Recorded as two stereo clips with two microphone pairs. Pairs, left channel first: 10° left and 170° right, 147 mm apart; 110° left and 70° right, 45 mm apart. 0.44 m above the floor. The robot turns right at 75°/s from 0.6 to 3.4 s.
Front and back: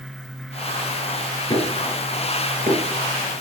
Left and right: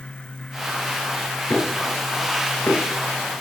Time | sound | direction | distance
1.5 | knocking | 70° left | 5 m